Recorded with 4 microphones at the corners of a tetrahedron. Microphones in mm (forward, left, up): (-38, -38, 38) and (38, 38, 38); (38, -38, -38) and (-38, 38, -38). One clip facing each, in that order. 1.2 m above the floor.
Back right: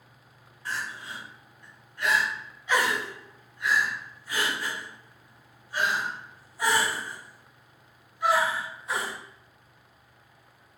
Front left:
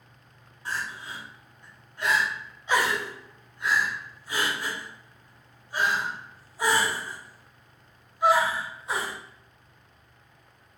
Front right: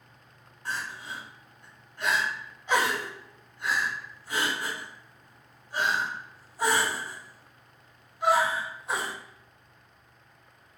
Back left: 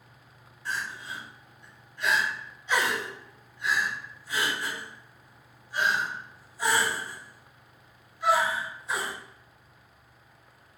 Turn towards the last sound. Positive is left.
turn(degrees=-15)